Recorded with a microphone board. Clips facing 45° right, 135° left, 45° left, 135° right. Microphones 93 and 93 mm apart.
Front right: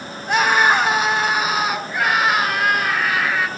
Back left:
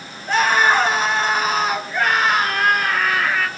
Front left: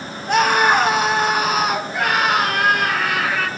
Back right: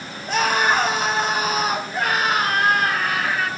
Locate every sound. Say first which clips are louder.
0.3 s a scream: even, front left 4 dB; 25° left, 5.5 m; by 3.5 s 40° left, 6.5 m